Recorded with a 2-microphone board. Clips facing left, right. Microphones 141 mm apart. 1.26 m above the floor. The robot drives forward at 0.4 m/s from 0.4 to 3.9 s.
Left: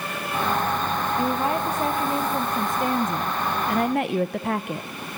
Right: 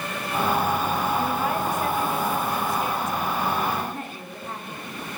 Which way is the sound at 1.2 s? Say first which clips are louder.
Left 1 dB; 30° left (ahead or behind).